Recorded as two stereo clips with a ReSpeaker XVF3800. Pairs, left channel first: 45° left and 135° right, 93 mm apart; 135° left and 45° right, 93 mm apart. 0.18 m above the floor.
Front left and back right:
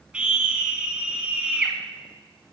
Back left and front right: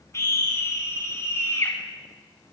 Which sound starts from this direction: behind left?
A scream, at 0.1 s.